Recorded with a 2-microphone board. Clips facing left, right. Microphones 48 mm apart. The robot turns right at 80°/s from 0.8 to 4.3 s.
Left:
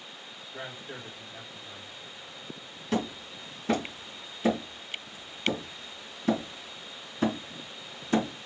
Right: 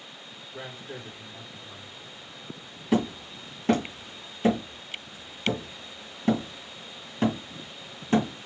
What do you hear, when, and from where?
0.5 s a man speaking: 25° left (ahead or behind), 1.9 m
2.9 s hammering: 15° right (ahead or behind), 2 m; by 8.3 s 40° right (ahead or behind), 2 m